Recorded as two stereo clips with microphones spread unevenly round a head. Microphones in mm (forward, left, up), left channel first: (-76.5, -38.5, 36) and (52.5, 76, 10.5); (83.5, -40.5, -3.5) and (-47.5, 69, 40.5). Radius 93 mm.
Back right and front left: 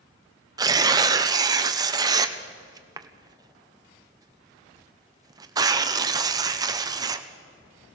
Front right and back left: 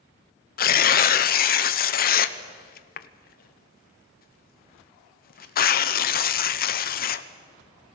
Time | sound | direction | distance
0.6 | tearing paper | 25° right | 0.9 m